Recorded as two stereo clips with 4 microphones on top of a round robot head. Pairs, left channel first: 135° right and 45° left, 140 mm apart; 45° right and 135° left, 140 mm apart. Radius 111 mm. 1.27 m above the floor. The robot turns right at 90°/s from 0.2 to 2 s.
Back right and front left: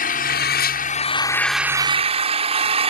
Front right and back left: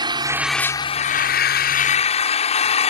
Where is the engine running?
165° right; by 2.9 s straight ahead.